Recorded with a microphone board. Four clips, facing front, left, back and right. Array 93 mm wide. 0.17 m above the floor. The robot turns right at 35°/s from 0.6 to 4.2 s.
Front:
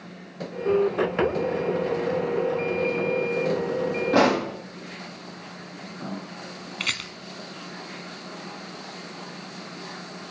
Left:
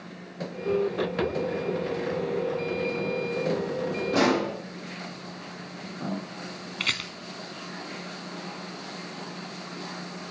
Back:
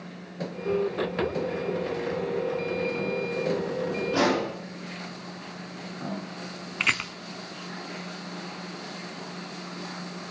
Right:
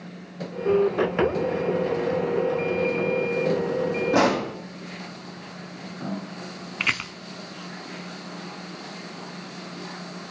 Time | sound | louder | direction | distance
4.1 | a pop | right 2 dB, front 4 dB | 20° right | 6 m
6.8 | a rattle | right 5 dB, back 5 dB | 130° right | 0.7 m